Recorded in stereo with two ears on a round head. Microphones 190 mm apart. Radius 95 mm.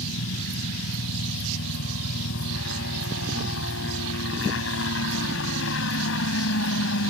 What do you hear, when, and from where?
0.0 s a helicopter: 65° left (ahead or behind)